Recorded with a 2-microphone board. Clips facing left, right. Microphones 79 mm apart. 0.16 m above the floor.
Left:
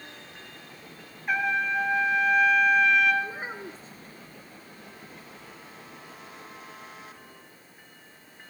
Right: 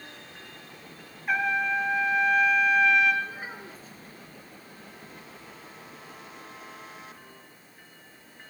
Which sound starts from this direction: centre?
A trumpet, at 1.3 s.